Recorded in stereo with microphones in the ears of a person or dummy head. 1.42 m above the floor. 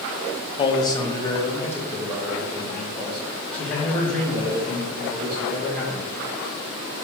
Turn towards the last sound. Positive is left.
turn(degrees=5)  # may be behind; listen again after turning